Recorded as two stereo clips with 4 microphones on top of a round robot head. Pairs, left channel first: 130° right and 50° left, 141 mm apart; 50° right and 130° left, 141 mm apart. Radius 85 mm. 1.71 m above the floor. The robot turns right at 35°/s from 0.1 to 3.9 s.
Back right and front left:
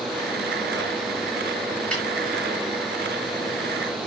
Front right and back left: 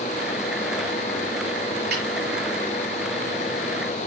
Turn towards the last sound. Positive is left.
turn(degrees=-145)